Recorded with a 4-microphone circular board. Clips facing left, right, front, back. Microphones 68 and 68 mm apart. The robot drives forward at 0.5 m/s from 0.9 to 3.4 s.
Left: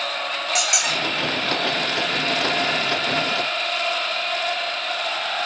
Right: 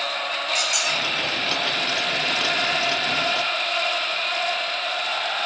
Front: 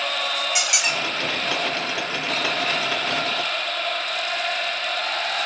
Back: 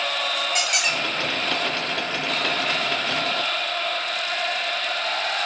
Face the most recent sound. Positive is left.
turn(degrees=155)